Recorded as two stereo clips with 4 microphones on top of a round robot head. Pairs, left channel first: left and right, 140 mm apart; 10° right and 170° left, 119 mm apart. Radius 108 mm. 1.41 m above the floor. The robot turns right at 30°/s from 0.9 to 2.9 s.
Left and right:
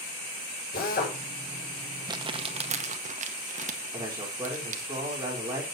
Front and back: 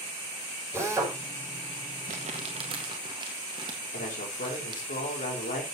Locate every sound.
0.7 s a drill: 105° left, 6.5 m; by 1.2 s 110° left, 6.5 m
2.1 s crumpling: 150° right, 1.8 m; by 4.8 s 125° right, 1.8 m
3.9 s a man speaking: 20° right, 4.5 m